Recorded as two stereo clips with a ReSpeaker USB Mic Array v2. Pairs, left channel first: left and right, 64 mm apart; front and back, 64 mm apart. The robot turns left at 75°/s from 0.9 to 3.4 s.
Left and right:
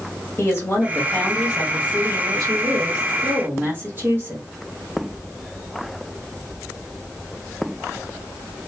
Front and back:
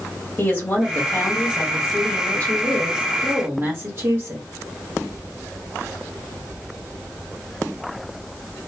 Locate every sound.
0.4 s a woman speaking: 50° left, 1.4 m; by 4.5 s 140° right, 1.4 m